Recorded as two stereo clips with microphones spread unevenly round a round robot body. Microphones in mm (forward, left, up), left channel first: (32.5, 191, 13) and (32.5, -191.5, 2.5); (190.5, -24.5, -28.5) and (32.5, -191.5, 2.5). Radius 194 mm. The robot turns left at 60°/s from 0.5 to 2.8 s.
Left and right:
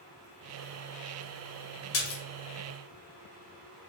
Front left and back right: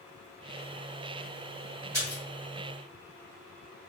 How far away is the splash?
About 0.7 m.